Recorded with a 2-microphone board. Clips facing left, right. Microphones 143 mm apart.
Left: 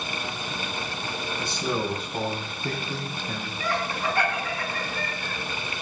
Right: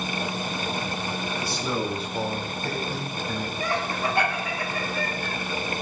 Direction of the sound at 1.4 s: 20° left (ahead or behind).